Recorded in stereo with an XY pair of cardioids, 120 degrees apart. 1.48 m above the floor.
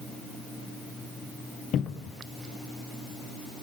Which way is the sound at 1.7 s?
55° left.